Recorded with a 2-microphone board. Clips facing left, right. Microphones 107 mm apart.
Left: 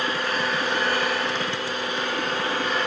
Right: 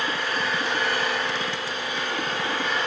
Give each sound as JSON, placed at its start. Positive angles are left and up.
{"t": 0.0, "sound": "an engine running", "side_deg": 45, "distance_m": 6.5}